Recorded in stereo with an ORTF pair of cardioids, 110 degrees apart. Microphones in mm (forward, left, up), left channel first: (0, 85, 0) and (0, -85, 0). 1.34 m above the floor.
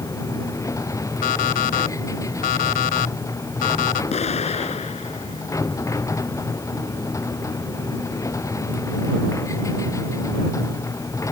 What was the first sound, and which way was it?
A machine running, 20° left.